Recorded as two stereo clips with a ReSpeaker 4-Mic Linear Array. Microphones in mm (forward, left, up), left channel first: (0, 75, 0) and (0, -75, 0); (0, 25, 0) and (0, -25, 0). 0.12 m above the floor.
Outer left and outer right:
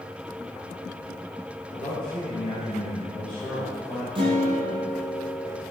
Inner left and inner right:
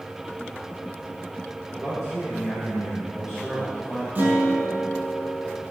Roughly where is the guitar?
Right.